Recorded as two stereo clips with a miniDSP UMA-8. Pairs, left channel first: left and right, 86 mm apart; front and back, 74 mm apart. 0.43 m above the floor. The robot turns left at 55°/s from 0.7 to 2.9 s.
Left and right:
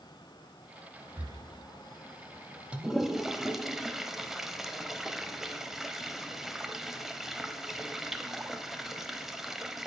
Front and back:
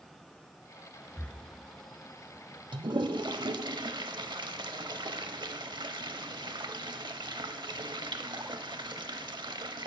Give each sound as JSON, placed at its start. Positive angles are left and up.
{"t": 1.2, "sound": "breathing", "azimuth_deg": -55, "distance_m": 0.8}
{"t": 2.7, "sound": "a toilet flushing", "azimuth_deg": -165, "distance_m": 0.5}